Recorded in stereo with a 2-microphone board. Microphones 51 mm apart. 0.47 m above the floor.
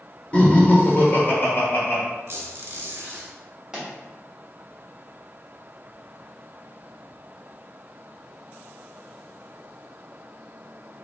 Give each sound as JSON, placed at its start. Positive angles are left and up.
{"t": 0.3, "sound": "laughter", "side_deg": 25, "distance_m": 1.4}
{"t": 2.3, "sound": "a squeak", "side_deg": -55, "distance_m": 1.1}
{"t": 3.7, "sound": "a pop", "side_deg": -15, "distance_m": 1.6}